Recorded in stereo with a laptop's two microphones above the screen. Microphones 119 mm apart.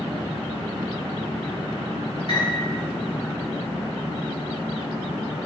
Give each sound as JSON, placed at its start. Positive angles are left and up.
{"t": 2.3, "sound": "a piano", "side_deg": 45, "distance_m": 1.9}